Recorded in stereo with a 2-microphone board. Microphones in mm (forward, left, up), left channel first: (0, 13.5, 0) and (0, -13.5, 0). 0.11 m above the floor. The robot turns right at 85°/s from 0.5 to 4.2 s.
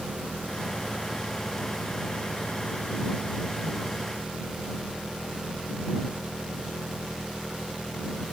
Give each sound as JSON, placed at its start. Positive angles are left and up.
{"t": 0.0, "sound": "an engine running", "azimuth_deg": -95}